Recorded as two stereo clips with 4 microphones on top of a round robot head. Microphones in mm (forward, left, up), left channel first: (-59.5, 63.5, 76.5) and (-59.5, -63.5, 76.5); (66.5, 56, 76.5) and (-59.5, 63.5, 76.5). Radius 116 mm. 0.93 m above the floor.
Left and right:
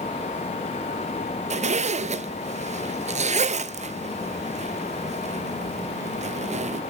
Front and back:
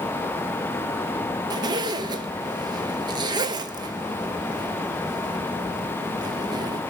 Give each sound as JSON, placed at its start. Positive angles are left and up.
{"t": 1.5, "sound": "a zipper", "azimuth_deg": -125, "distance_m": 0.7}